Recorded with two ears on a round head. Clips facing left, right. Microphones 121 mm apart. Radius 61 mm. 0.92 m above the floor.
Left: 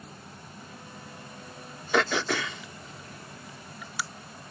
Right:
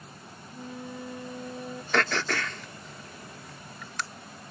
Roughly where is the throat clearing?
Centre.